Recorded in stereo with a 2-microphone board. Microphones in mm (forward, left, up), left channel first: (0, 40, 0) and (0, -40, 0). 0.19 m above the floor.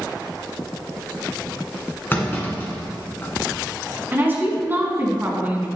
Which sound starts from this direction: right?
A woman speaking, at 4.1 s.